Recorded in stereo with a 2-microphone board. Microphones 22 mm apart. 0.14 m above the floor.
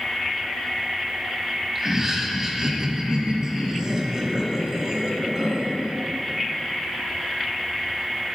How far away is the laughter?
About 1.5 m.